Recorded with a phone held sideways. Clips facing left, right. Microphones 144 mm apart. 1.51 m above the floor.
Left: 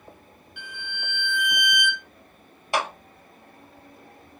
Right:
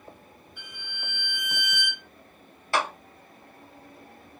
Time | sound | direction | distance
0.6 | a violin | 75° left (ahead or behind) | 0.9 m
2.7 | a clap | 20° left (ahead or behind) | 0.9 m